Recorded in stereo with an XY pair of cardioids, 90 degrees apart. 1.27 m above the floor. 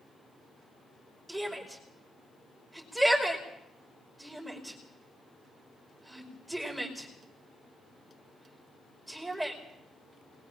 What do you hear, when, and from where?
1.3 s a shout: 5° right, 5 m